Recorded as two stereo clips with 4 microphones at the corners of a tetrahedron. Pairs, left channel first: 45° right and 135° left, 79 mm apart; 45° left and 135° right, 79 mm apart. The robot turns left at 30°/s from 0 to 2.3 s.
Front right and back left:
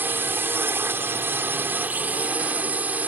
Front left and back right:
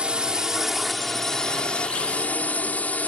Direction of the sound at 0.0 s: 160° left.